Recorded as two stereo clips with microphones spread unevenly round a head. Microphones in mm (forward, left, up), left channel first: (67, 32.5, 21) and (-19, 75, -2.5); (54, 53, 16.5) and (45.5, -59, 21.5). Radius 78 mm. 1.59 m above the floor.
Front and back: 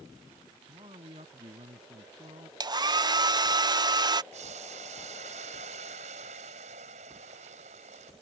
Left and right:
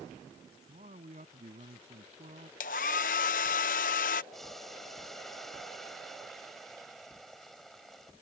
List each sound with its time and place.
0.7 s a man speaking: 145° right
2.6 s a hair dryer: 105° left
4.3 s boiling: 175° left